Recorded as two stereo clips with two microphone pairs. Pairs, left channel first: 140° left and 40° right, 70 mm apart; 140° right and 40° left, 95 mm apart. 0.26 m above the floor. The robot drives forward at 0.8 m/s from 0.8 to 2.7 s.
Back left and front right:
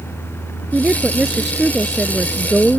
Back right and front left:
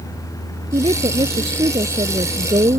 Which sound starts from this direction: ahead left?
A woman speaking, at 0.7 s.